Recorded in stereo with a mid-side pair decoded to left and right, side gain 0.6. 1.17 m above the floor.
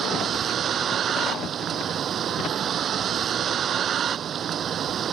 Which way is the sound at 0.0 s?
45° right.